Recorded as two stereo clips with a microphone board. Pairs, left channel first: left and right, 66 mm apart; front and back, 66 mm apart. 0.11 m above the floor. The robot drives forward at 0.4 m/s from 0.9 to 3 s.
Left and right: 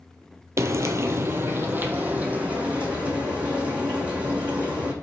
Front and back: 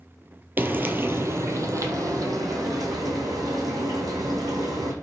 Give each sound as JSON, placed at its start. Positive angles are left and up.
{"t": 0.6, "sound": "frying", "azimuth_deg": -125, "distance_m": 0.5}